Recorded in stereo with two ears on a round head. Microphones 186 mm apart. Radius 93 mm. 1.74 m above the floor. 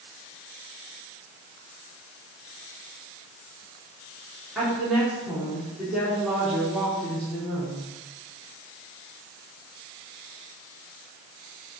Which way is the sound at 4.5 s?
Centre (ahead or behind).